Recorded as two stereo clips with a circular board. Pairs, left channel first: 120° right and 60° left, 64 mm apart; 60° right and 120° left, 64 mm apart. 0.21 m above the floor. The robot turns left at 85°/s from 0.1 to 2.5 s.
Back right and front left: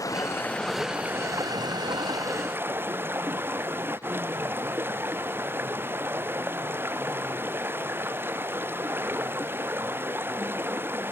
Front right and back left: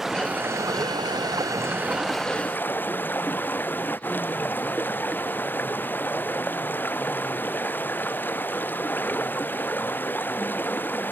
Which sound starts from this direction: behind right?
Running water, at 0.0 s.